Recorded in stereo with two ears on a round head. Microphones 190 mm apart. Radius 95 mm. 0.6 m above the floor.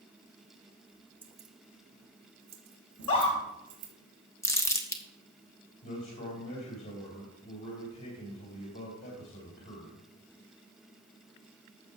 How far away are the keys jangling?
About 1.2 m.